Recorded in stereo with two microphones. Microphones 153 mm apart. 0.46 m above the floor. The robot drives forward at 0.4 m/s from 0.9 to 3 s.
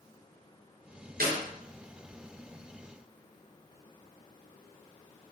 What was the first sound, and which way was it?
A clap, 75° right (ahead or behind).